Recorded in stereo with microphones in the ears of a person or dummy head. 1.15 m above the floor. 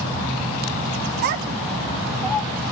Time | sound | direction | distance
1.2 | a child speaking | 45° right (ahead or behind) | 0.6 m